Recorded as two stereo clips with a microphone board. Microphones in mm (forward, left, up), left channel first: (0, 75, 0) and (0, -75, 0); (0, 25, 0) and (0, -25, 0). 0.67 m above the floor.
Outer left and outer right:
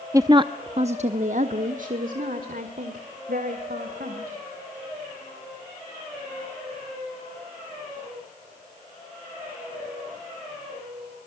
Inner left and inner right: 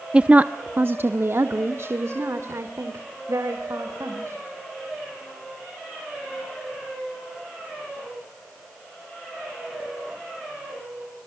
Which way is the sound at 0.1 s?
20° right (ahead or behind).